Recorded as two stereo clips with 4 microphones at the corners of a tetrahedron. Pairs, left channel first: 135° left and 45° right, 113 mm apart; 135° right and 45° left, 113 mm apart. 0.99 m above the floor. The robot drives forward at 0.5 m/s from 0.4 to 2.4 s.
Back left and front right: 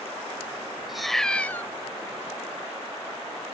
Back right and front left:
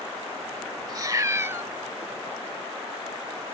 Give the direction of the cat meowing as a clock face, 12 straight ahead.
11 o'clock.